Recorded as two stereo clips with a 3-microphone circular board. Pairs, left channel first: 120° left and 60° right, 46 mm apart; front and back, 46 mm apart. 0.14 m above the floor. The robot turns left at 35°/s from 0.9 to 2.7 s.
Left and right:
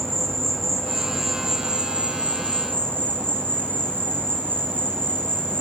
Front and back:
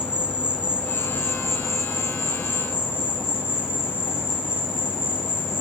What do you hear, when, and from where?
0.0 s an insect: 40° left, 5 m; by 5.6 s 20° right, 5 m